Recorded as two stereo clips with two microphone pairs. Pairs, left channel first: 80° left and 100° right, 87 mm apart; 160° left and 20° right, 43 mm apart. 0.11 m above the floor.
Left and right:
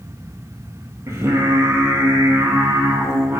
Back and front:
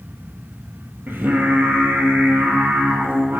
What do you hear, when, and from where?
1.1 s singing: 40° right, 0.6 m